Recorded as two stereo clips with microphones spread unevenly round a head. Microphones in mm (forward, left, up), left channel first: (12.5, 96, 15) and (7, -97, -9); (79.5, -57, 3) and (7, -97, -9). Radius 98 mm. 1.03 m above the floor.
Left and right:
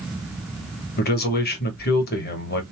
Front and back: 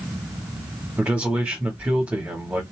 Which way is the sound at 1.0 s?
130° left.